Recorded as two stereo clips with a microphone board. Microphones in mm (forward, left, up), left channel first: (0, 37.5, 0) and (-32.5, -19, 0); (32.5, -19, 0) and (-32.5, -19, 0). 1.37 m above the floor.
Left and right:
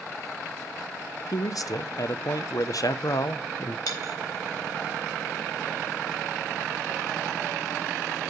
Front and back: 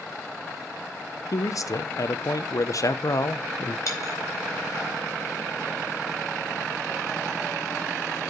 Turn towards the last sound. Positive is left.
turn(degrees=40)